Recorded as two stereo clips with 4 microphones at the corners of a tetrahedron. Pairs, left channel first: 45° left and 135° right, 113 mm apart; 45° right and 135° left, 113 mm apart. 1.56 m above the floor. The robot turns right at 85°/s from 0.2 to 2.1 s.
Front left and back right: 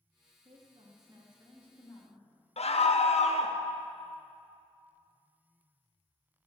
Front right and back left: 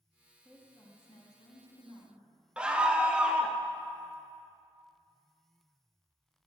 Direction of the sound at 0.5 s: 130° right.